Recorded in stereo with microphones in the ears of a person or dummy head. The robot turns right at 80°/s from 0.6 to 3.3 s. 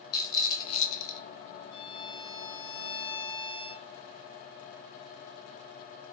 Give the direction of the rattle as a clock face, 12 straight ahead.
11 o'clock.